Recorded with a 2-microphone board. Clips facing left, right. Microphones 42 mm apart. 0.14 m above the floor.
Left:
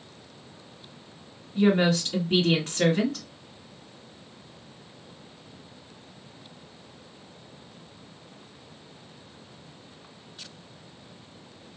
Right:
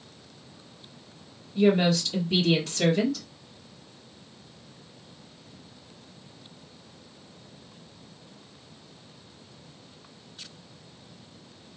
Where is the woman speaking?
40° left (ahead or behind), 1.9 m.